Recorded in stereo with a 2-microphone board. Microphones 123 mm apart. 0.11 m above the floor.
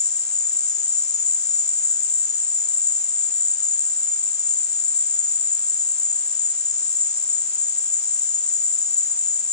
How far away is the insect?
About 1.0 m.